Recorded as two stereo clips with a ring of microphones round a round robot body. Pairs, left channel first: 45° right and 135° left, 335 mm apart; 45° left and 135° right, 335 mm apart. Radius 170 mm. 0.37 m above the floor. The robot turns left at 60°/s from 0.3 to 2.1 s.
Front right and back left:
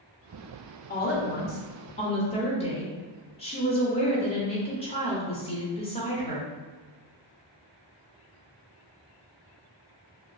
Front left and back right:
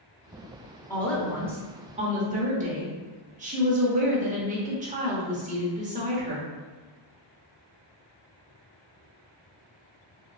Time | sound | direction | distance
0.9 | a woman speaking | 25° right | 1.0 m